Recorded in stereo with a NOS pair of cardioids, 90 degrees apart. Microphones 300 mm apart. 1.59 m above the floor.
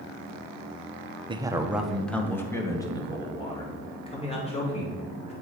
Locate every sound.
1.3 s a man speaking: 15° right, 0.9 m; by 5.3 s 20° left, 3.5 m